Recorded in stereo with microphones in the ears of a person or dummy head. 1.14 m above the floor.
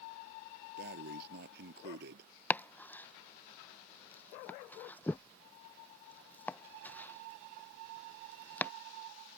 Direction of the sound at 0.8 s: 65° right (ahead or behind).